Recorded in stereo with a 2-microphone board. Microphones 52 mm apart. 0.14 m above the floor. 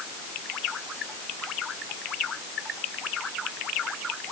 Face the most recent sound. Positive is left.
No sound to turn to.